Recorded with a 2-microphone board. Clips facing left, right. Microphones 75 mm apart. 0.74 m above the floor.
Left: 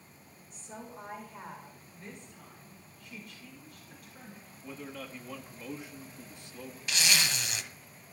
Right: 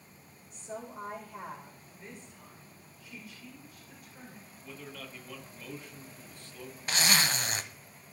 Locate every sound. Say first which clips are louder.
0.5 s a woman speaking: right 4 dB; 60° right (ahead or behind), 3.5 m
1.9 s a woman speaking: left 1 dB; 5° right (ahead or behind), 2.5 m
4.6 s a man speaking: left 3 dB; 15° left (ahead or behind), 1.5 m
6.9 s a zipper: right 2 dB; 40° right (ahead or behind), 0.7 m